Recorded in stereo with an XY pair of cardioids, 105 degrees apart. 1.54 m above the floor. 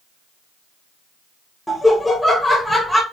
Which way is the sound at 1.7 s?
10° left.